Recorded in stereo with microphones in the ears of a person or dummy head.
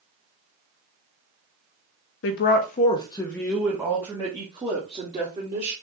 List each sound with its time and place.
2.2 s a woman speaking: 55° left (ahead or behind), 0.7 m; by 5.7 s 30° right (ahead or behind), 1.7 m